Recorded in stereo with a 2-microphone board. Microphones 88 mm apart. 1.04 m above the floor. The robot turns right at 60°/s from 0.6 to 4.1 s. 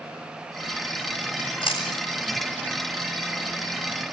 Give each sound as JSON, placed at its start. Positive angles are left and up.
{"t": 1.4, "sound": "chewing", "side_deg": 85, "distance_m": 8.5}